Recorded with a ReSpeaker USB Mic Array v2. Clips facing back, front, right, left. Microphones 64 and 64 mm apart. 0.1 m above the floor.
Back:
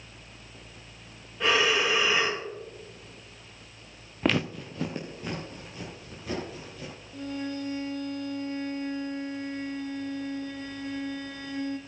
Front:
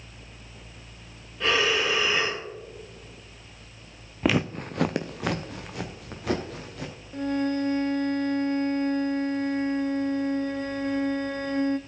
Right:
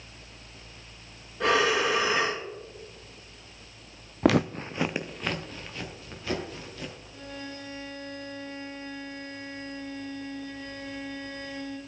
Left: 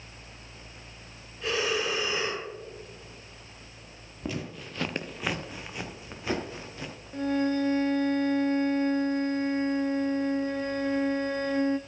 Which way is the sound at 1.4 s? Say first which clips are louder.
Even, right 6 dB; 100° right.